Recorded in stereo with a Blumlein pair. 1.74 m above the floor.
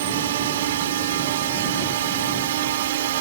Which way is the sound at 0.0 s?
55° right.